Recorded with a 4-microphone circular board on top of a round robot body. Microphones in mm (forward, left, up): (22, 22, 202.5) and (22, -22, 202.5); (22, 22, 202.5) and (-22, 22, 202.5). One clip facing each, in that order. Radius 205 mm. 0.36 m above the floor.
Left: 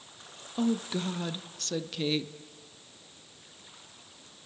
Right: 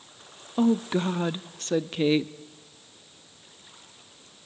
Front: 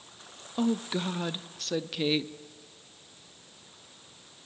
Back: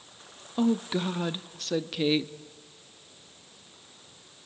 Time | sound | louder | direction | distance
0.6 | a woman speaking | right 6 dB, back 3 dB | 95° right | 1.0 m